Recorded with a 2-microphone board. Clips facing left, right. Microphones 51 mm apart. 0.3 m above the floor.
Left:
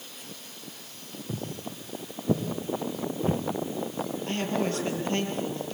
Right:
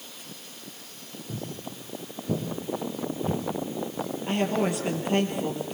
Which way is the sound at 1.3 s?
25° left (ahead or behind).